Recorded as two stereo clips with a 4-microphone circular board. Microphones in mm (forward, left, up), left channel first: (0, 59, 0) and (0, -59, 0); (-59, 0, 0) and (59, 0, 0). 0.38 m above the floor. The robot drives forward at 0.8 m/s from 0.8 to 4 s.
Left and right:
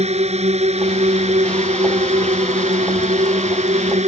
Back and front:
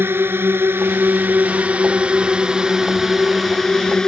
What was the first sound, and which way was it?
A drone, 70° right.